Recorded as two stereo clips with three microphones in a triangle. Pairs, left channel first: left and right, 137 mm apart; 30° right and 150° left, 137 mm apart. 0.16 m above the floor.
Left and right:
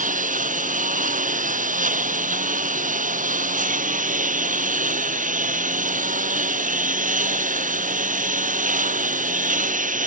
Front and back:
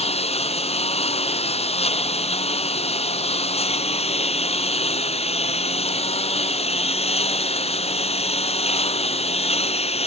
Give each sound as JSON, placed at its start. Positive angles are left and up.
{"t": 0.0, "sound": "a lawn mower", "azimuth_deg": -70}